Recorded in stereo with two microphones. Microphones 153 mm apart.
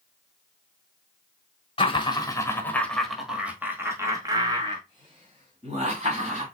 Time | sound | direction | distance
1.8 | laughter | 35° left (ahead or behind) | 1.3 m